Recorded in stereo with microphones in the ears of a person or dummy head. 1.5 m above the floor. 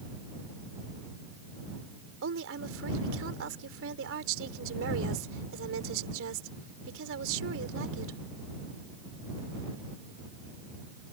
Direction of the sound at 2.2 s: 75° right (ahead or behind).